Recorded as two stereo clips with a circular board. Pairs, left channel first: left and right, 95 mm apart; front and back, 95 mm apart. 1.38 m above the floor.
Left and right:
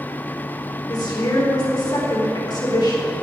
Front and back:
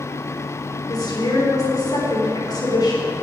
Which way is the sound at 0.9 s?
45° left.